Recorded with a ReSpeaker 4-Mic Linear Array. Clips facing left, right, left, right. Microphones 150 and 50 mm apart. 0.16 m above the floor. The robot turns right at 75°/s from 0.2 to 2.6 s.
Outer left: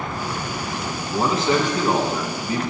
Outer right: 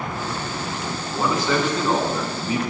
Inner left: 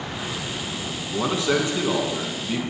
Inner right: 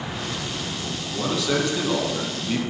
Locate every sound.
1.1 s a man speaking: 110° left, 1.2 m; by 2.6 s 140° right, 1.2 m